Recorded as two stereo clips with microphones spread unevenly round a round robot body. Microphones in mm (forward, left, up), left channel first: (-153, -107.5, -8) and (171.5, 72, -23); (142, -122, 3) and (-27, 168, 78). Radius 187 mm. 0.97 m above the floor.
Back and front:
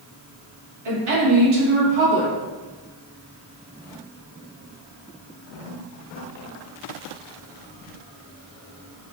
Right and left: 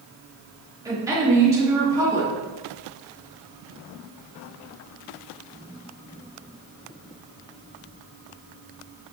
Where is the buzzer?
I don't hear a buzzer.